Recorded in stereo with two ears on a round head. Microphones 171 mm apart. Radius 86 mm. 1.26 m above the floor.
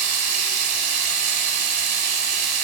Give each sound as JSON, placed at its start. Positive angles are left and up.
{"t": 0.0, "sound": "running water", "side_deg": -60, "distance_m": 1.8}